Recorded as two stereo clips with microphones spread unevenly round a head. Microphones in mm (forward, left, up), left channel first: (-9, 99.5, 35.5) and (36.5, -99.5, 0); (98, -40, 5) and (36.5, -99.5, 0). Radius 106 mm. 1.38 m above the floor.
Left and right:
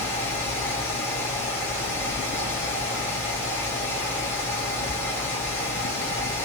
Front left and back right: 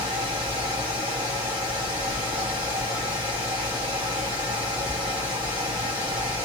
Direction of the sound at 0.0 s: Straight behind.